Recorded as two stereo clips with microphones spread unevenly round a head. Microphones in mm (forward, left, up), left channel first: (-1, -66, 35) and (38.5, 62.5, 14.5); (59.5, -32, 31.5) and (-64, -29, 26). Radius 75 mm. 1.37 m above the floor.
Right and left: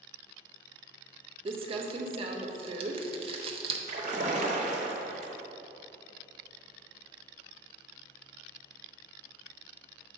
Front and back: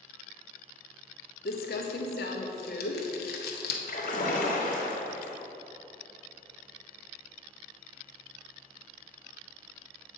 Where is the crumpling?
20° left, 0.7 m.